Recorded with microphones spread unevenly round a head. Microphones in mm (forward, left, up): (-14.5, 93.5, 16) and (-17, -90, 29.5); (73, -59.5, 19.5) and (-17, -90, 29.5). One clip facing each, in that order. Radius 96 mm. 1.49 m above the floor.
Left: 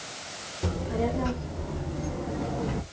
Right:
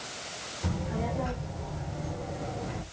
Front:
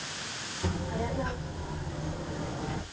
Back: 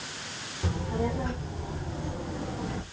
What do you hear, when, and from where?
0.6 s a child speaking: 125° left, 3 m; by 2.8 s 115° left, 1.4 m